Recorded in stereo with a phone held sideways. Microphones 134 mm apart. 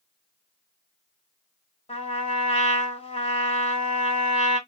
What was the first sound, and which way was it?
A trumpet, 55° left (ahead or behind).